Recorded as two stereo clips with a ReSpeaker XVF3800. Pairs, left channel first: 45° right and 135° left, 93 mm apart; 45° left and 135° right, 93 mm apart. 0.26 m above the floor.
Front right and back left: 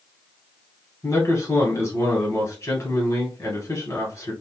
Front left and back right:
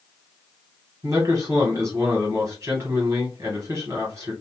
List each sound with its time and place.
1.0 s a man speaking: 90° right, 1.5 m